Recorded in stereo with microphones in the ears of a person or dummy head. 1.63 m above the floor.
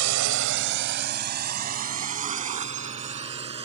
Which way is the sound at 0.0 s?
75° right (ahead or behind).